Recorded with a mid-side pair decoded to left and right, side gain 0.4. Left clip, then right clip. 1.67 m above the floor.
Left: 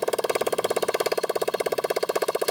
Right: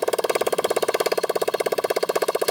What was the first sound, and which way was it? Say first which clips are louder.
A motorcycle: right 3 dB; 30° right.